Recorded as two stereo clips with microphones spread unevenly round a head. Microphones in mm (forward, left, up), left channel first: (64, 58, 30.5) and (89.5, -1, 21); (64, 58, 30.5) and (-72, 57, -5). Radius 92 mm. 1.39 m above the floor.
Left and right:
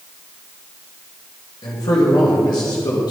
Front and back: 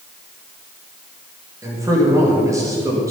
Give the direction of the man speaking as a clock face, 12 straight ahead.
8 o'clock.